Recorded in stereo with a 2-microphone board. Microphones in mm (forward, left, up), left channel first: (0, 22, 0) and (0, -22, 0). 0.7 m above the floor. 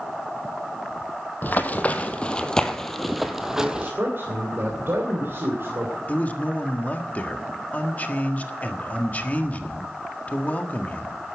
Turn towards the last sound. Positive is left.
turn(degrees=40)  # may be behind; listen again after turning